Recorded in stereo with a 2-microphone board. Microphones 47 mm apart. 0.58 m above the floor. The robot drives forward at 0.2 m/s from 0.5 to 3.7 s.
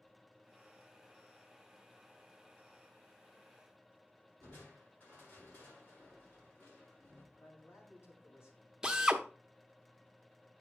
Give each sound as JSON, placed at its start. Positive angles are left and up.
{"t": 4.4, "sound": "crushing", "side_deg": 50, "distance_m": 6.5}
{"t": 7.3, "sound": "a man speaking", "side_deg": 70, "distance_m": 3.5}
{"t": 8.8, "sound": "a drill", "side_deg": -10, "distance_m": 0.8}